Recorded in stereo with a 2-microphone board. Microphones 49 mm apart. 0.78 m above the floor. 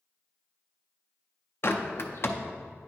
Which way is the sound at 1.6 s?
50° left (ahead or behind).